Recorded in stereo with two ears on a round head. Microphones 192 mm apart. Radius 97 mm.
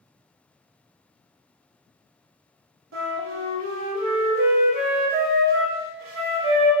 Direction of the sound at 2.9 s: 70° right (ahead or behind).